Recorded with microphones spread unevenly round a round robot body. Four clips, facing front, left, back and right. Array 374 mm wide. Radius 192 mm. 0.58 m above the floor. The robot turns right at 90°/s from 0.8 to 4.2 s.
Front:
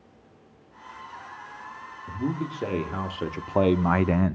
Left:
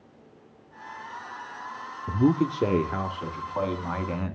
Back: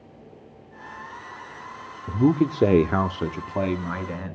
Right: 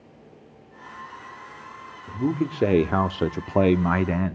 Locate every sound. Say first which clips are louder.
2.1 s a man speaking: left 3 dB, back 10 dB; 145° left, 1.1 m; by 4.4 s 20° right, 1.1 m